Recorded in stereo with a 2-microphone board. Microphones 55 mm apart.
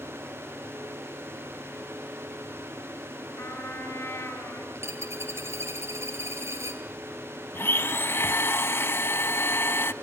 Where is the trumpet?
45° left (ahead or behind), 4.5 m.